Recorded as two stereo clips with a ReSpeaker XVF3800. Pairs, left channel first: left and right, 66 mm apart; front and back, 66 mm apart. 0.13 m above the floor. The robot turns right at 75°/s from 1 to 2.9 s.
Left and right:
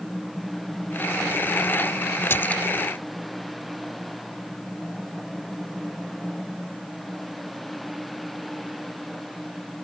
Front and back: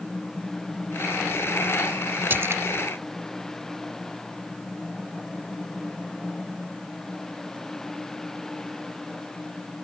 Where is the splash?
130° left; by 2.6 s 155° left.